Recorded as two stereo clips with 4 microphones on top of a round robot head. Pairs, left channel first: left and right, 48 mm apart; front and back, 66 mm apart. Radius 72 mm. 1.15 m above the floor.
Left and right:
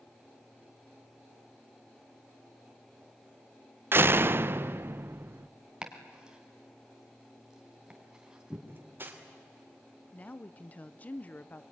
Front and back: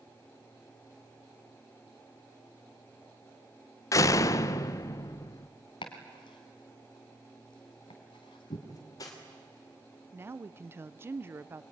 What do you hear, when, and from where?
3.9 s a door slam: 45° right, 0.6 m
5.8 s chopping: 15° right, 2 m
8.7 s cutlery clinking: 45° right, 3 m
10.1 s a woman speaking: 140° left, 0.7 m